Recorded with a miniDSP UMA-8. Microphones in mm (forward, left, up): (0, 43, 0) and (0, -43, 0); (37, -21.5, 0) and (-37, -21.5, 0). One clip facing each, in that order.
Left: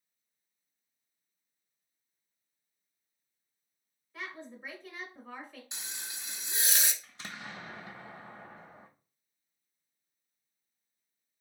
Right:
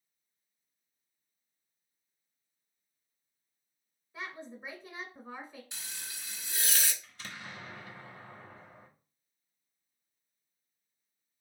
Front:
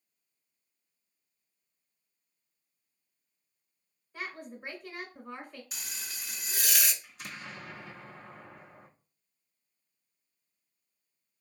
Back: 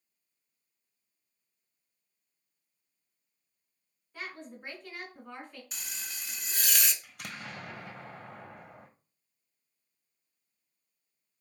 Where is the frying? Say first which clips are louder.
Left 1 dB, even; 80° left, 0.6 m.